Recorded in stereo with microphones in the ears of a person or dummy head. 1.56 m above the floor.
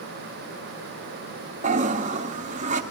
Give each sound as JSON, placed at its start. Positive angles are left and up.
{"t": 1.6, "sound": "a toilet flushing", "side_deg": -40, "distance_m": 0.8}